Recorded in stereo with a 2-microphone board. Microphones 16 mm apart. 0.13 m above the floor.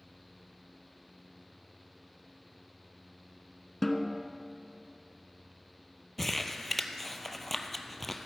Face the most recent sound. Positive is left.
turn(degrees=10)  # may be behind; listen again after turning